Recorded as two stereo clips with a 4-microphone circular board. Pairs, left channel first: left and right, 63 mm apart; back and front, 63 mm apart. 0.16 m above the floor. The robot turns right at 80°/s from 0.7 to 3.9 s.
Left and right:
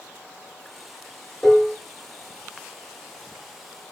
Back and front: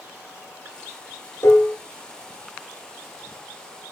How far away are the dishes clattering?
About 1.5 m.